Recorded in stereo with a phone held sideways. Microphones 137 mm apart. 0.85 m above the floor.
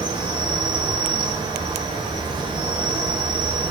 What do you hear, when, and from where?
0.0 s an insect: 35° right (ahead or behind), 0.7 m